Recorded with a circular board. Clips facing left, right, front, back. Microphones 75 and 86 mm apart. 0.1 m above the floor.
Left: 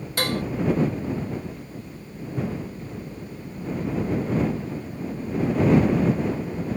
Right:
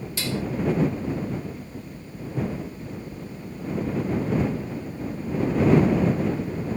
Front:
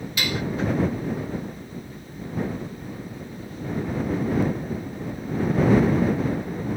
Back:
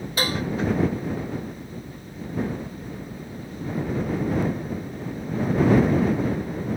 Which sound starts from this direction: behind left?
Dishes clattering, at 0.2 s.